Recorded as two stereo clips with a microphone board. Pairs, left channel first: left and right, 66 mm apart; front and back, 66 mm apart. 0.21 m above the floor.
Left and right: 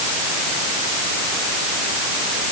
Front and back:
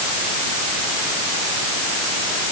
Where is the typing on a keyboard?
I don't hear typing on a keyboard.